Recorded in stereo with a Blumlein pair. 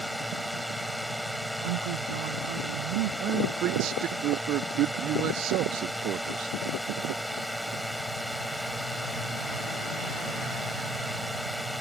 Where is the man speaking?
35° right.